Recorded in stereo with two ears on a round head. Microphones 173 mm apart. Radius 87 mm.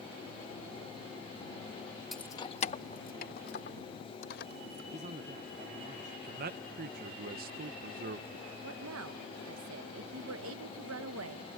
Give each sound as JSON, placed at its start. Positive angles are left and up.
{"t": 2.1, "sound": "keys jangling", "side_deg": 0}
{"t": 4.9, "sound": "a man speaking", "side_deg": -35}
{"t": 6.2, "sound": "a man speaking", "side_deg": -50}
{"t": 8.6, "sound": "a woman speaking", "side_deg": -80}